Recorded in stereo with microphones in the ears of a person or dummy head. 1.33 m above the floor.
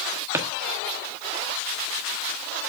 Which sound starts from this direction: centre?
A drawer, at 0.3 s.